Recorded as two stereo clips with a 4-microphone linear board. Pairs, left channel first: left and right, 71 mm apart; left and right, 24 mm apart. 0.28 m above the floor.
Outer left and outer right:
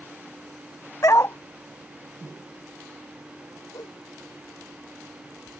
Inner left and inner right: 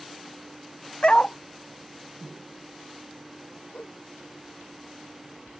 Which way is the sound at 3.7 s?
65° left (ahead or behind).